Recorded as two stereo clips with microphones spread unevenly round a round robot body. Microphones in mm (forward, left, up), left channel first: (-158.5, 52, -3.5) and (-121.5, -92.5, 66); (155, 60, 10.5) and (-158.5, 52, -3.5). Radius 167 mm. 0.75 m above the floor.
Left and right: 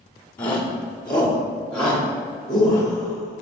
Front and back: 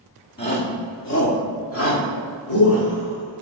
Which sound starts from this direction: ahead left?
A shout, at 0.4 s.